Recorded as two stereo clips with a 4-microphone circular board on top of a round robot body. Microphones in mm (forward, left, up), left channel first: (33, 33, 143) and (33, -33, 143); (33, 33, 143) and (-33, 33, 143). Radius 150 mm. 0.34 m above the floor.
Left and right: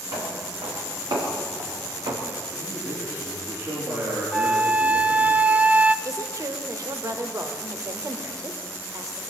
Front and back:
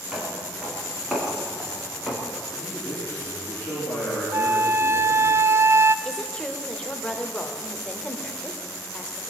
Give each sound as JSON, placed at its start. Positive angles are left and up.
{"t": 0.1, "sound": "footsteps", "azimuth_deg": -95, "distance_m": 7.0}
{"t": 2.5, "sound": "a man speaking", "azimuth_deg": -60, "distance_m": 6.0}
{"t": 4.3, "sound": "a flute", "azimuth_deg": -150, "distance_m": 0.8}
{"t": 6.0, "sound": "a woman speaking", "azimuth_deg": -75, "distance_m": 2.0}